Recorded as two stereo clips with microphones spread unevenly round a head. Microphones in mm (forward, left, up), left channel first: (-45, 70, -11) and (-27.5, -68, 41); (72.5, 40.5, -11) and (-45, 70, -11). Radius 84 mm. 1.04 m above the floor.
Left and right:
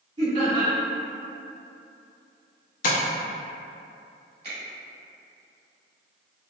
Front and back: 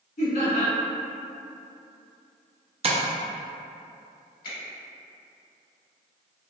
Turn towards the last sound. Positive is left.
turn(degrees=-30)